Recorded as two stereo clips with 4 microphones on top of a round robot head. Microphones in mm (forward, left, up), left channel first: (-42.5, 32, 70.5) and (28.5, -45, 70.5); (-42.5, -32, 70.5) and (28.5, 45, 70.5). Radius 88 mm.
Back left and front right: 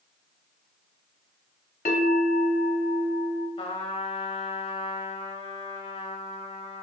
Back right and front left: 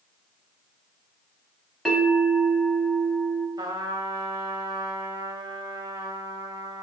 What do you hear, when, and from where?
1.9 s a bell: 135° left, 1.0 m
3.6 s a trumpet: 105° left, 0.9 m